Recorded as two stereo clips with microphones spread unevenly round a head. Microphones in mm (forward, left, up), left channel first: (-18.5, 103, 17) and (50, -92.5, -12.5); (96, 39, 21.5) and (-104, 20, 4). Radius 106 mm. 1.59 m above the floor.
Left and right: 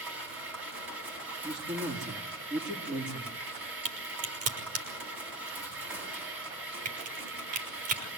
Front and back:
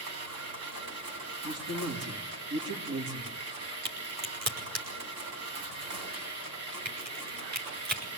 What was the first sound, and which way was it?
A machine running, 155° right.